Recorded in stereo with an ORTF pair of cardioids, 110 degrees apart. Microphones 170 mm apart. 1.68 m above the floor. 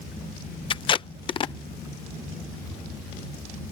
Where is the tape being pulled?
30° left.